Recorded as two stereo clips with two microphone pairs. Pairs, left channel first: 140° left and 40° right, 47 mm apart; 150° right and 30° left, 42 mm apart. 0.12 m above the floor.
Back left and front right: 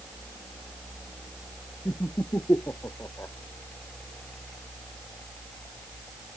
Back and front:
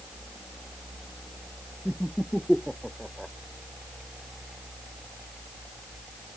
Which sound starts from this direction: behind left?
Laughter, at 1.9 s.